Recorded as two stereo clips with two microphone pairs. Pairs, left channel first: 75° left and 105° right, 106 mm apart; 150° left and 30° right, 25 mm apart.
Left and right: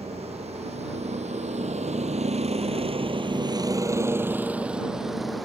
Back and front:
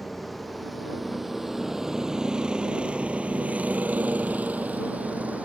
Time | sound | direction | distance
0.0 | a vehicle | 125° right | ?